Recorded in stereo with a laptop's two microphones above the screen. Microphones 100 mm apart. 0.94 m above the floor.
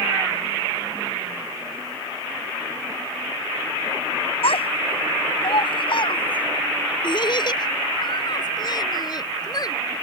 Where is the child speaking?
70° left (ahead or behind); by 9.7 s 40° left (ahead or behind).